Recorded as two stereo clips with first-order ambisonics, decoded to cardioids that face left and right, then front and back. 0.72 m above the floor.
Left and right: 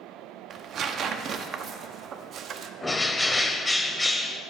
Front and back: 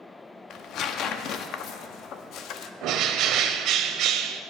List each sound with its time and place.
0.5 s tearing paper: 40° right, 0.6 m
2.8 s a bird: 170° left, 0.6 m